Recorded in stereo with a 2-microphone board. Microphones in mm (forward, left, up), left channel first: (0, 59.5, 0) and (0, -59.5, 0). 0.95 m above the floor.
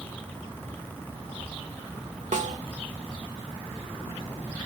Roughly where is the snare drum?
Right.